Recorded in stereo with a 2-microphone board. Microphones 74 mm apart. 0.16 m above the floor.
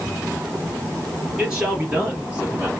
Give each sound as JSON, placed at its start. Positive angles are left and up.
{"t": 1.4, "sound": "a man speaking", "side_deg": -15, "distance_m": 3.0}